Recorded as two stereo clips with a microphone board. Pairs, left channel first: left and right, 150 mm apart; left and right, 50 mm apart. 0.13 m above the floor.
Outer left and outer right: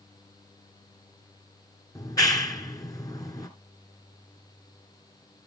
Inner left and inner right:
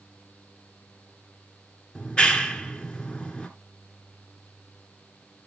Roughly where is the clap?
Left.